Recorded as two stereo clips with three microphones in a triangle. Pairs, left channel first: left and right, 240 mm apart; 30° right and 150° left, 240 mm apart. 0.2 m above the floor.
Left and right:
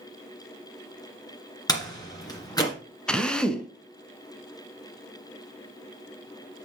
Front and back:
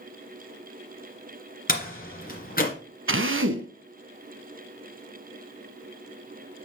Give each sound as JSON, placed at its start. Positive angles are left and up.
{"t": 1.7, "sound": "a door slam", "azimuth_deg": 15, "distance_m": 2.0}
{"t": 3.1, "sound": "a drill", "azimuth_deg": 175, "distance_m": 0.8}